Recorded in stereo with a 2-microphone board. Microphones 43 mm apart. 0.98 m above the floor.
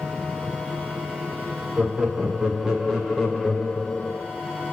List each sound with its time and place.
1.8 s laughter: 30° right (ahead or behind), 2 m; by 4.2 s 35° left (ahead or behind), 1.2 m